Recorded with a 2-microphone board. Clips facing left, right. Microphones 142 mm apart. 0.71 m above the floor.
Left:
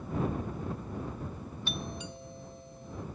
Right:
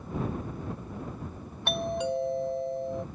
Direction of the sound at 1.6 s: 70° right (ahead or behind).